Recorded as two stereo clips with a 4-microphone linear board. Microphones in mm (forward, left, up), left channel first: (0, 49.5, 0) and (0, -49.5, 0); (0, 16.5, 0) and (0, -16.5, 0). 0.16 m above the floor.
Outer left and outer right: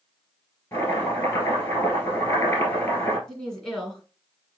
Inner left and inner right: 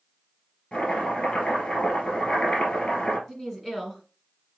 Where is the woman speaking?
5° left (ahead or behind), 1.7 m.